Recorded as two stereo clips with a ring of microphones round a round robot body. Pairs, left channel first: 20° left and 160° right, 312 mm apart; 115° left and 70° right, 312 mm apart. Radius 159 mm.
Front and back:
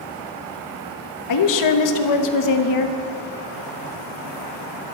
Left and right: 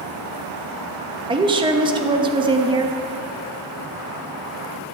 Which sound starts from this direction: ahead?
A woman speaking, at 1.3 s.